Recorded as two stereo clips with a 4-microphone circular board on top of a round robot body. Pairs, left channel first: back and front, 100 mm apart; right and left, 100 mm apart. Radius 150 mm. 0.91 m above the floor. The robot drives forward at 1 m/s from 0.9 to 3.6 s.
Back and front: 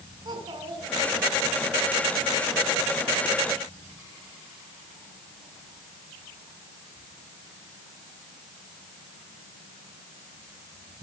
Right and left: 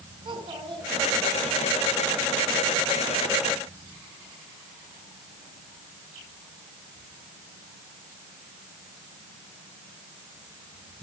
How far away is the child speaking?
About 6.5 m.